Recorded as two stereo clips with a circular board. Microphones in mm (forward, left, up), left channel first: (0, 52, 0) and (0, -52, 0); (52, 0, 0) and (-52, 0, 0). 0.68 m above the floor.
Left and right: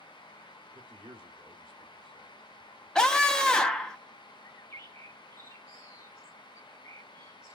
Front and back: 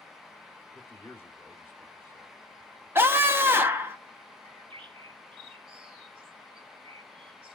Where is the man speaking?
65° right, 1.5 m.